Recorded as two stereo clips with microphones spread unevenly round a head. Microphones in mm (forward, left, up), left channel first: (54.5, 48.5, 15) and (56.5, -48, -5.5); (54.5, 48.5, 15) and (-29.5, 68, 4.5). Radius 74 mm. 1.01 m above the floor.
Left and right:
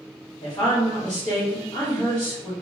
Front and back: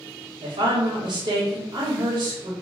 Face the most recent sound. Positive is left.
turn(degrees=155)